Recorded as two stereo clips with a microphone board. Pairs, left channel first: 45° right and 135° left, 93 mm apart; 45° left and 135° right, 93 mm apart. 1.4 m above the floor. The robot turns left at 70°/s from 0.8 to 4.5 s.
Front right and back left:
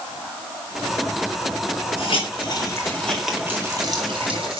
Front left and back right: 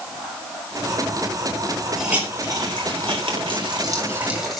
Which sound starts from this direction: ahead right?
A hiss, at 2.0 s.